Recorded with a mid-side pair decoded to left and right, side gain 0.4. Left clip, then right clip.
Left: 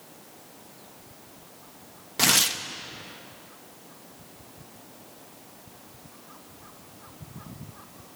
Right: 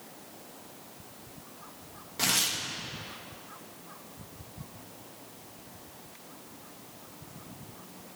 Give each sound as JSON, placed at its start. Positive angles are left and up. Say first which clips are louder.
{"t": 2.2, "sound": "tearing paper", "louder": "left 6 dB", "azimuth_deg": 55, "distance_m": 1.1}